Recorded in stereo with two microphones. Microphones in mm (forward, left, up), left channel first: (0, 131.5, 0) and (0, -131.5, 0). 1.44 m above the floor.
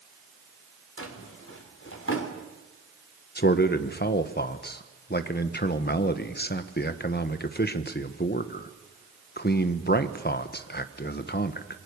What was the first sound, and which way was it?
A drawer, 55° left (ahead or behind).